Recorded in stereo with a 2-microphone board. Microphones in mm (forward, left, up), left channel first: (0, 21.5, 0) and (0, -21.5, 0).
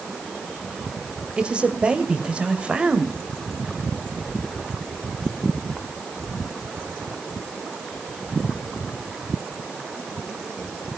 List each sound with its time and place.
1.4 s a man speaking: 25° right (ahead or behind), 1.9 m